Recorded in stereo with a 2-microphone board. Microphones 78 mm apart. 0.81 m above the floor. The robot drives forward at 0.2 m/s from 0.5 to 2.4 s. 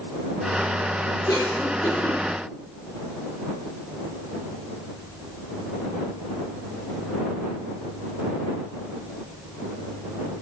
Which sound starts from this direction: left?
A cough, at 1.3 s.